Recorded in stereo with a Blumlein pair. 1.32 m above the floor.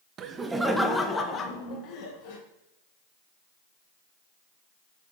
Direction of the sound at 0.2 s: 30° right.